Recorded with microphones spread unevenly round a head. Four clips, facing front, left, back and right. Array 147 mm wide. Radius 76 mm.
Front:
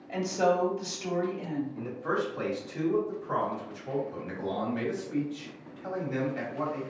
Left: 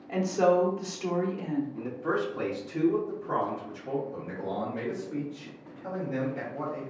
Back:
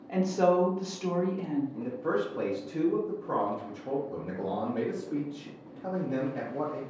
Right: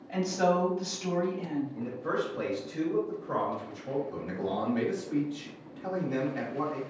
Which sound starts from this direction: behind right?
A man speaking, at 4.1 s.